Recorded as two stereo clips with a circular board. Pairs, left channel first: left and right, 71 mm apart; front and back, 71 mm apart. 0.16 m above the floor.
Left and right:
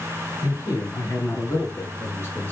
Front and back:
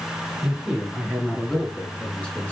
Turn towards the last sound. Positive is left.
turn(degrees=50)